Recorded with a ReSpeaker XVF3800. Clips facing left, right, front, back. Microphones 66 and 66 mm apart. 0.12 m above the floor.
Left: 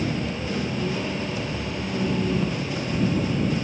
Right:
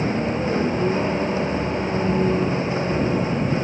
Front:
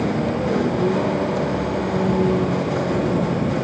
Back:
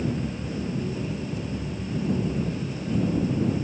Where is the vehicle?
30° right; by 3.6 s 25° right.